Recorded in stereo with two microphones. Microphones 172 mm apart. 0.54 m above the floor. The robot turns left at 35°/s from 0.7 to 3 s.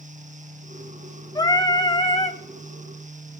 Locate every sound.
1.4 s singing: 140° left, 1.2 m; by 2.4 s 105° left, 1.2 m